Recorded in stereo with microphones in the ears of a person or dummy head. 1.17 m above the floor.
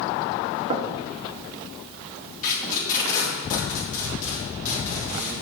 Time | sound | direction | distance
0.7 | knocking | 30° right (ahead or behind) | 0.8 m
2.4 | tape being pulled | 45° left (ahead or behind) | 3 m